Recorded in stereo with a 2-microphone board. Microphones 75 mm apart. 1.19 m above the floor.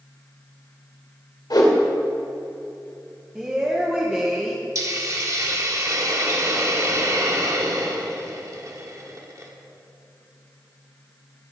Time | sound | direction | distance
1.5 | a whoosh | 70° left (ahead or behind) | 1.9 m
3.4 | a woman speaking | 15° right (ahead or behind) | 1.0 m
4.8 | a hiss | 45° right (ahead or behind) | 1.3 m